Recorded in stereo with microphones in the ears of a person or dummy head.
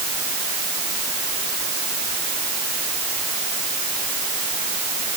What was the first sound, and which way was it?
Only background noise.